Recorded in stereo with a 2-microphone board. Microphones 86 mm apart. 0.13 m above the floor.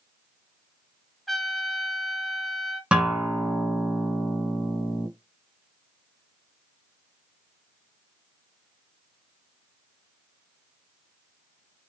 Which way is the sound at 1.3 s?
Centre (ahead or behind).